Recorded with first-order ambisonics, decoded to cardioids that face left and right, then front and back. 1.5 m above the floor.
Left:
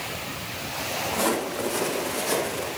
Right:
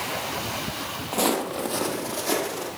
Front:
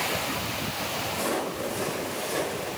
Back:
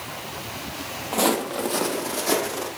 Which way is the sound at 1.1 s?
150° right.